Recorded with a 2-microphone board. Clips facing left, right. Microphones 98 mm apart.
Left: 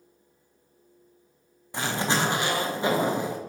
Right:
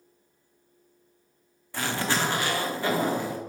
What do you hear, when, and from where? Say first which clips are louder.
1.7 s a zipper: left 1 dB; 20° left (ahead or behind), 0.9 m